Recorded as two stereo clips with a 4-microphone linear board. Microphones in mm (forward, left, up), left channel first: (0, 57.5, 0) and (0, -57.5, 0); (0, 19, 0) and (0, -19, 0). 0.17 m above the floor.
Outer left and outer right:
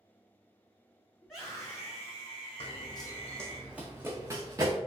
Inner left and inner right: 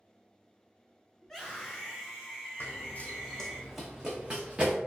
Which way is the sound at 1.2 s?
5° right (ahead or behind).